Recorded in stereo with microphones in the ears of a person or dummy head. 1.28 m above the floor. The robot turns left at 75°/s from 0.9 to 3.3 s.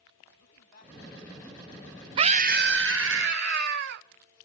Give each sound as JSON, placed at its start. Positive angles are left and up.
{"t": 0.4, "sound": "a man speaking", "azimuth_deg": 55, "distance_m": 9.5}
{"t": 2.2, "sound": "a scream", "azimuth_deg": -35, "distance_m": 0.7}